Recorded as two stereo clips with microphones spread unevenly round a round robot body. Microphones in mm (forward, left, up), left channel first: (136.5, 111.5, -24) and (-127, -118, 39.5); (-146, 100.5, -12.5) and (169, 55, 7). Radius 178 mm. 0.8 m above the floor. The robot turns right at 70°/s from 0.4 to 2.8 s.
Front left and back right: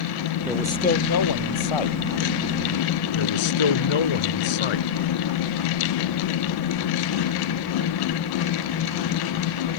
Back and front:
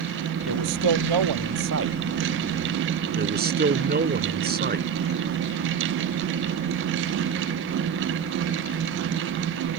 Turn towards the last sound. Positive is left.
turn(degrees=50)